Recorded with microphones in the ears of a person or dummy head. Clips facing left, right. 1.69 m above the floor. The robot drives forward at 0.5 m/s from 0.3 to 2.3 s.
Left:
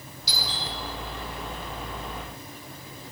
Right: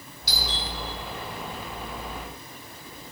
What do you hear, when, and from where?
0.3 s a doorbell: 50° right (ahead or behind), 5.5 m; by 0.7 s 55° right (ahead or behind), 5.5 m